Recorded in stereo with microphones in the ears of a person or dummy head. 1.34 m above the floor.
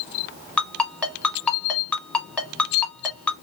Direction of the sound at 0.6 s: 10° left (ahead or behind).